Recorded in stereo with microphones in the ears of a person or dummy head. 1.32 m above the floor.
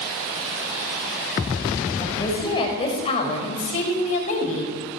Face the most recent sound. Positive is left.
turn(degrees=45)  # may be behind; listen again after turning